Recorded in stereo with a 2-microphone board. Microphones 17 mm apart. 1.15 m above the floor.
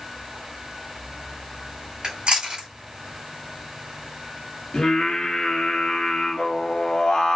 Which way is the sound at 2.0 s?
60° right (ahead or behind).